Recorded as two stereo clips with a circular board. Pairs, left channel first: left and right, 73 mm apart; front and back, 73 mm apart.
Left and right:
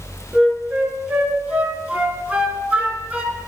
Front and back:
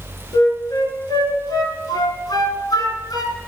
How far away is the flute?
About 1.3 m.